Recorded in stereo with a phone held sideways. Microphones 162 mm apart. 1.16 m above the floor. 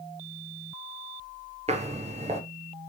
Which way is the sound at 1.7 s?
40° right (ahead or behind).